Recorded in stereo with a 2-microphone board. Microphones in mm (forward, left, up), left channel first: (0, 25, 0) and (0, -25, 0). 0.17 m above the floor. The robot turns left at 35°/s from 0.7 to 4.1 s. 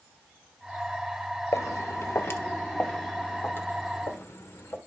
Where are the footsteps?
80° left, 0.8 m; by 4.8 s 50° left (ahead or behind), 2.5 m.